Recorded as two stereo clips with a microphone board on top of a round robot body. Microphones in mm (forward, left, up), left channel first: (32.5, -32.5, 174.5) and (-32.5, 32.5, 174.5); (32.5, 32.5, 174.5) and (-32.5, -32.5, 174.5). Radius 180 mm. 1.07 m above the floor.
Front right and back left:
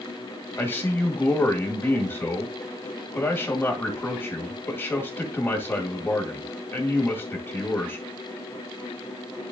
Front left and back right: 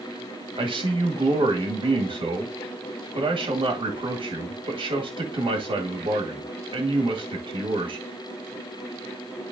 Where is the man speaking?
110° right, 2 m.